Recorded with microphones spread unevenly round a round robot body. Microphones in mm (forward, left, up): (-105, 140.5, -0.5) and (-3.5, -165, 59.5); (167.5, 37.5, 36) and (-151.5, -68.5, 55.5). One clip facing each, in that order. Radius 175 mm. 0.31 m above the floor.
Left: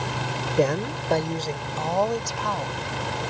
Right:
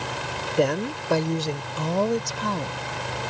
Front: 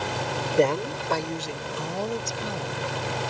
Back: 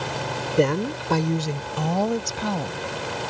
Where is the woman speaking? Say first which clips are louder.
Even, back 2 dB; 135° left; by 2.8 s 140° right.